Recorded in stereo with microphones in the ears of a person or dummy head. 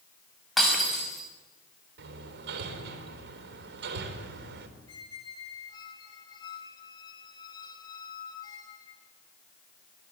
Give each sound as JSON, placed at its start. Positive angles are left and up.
{"t": 0.6, "sound": "breaking glass", "side_deg": 0, "distance_m": 6.0}
{"t": 2.0, "sound": "hammering", "side_deg": -70, "distance_m": 3.5}
{"t": 4.9, "sound": "a squeak", "side_deg": 30, "distance_m": 2.0}